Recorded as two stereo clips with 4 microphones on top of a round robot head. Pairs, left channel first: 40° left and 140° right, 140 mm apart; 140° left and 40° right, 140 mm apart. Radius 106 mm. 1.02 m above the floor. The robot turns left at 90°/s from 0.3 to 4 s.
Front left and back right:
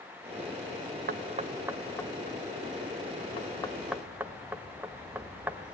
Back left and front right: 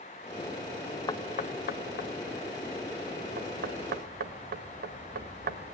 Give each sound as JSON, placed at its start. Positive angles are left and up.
{"t": 1.1, "sound": "knocking", "azimuth_deg": -155, "distance_m": 1.0}